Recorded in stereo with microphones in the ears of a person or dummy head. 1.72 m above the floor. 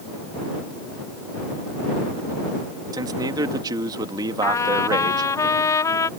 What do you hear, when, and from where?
2.9 s a man speaking: 20° right (ahead or behind)
4.4 s a trumpet: 20° left (ahead or behind)